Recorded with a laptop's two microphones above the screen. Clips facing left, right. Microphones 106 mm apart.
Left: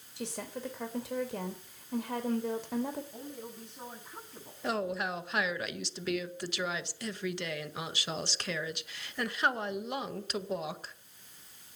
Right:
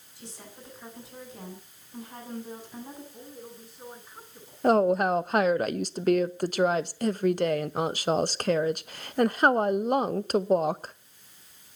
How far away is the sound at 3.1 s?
About 9.5 m.